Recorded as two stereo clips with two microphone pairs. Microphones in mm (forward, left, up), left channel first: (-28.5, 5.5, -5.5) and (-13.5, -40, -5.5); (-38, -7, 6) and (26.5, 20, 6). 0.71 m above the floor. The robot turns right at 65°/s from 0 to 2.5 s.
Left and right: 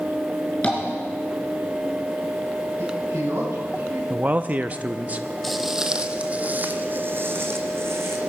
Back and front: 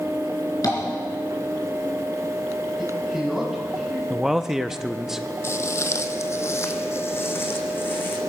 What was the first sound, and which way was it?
Tapping, 170° left.